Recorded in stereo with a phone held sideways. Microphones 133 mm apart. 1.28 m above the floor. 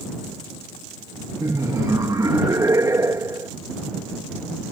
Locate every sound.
1.4 s laughter: 25° right (ahead or behind)